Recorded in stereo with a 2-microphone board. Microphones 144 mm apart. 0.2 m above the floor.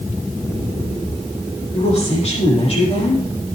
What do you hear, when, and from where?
1.7 s a woman speaking: 45° left (ahead or behind), 8 m